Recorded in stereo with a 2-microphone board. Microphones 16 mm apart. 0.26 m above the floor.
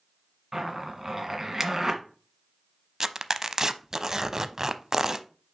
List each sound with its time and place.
0.5 s a zipper: 25° right (ahead or behind), 1.5 m
3.0 s tearing paper: 35° right (ahead or behind), 0.5 m